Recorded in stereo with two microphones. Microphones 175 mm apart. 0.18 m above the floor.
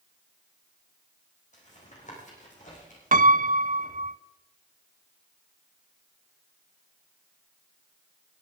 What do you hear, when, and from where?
1.5 s tapping: 45° left (ahead or behind), 7 m
3.1 s a piano: 50° right (ahead or behind), 0.6 m